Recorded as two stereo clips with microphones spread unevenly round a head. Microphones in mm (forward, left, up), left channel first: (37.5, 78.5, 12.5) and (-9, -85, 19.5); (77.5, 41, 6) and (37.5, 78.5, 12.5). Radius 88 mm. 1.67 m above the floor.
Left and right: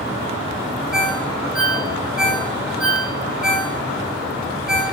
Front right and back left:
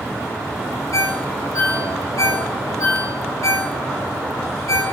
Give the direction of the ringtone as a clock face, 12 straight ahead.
1 o'clock.